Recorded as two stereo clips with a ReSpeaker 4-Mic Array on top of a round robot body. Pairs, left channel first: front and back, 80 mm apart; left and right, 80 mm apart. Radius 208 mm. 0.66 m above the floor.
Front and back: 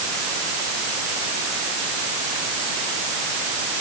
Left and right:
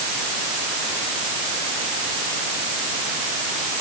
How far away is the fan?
No fan in this recording.